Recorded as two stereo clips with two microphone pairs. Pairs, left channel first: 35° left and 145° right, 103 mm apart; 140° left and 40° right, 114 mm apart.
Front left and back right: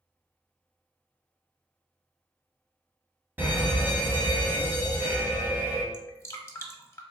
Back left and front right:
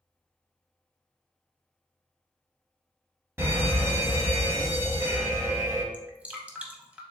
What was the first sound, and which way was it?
An alarm, 85° right.